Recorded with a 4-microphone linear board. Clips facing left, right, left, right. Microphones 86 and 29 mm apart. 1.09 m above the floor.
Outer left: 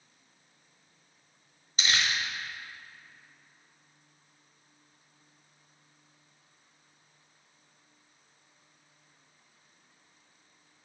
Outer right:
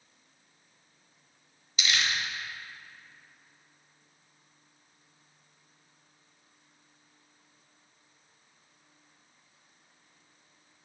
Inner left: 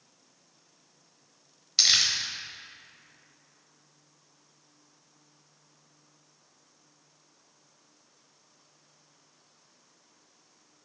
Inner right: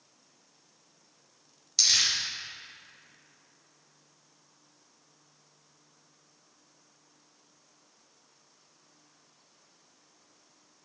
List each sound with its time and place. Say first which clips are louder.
1.8 s crumpling: outer left 1 dB, inner left 2 dB; 40° left (ahead or behind), 1.0 m